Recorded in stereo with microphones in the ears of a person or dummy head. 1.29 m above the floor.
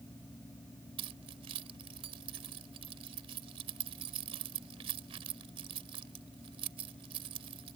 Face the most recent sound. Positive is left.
turn(degrees=-30)  # may be behind; listen again after turning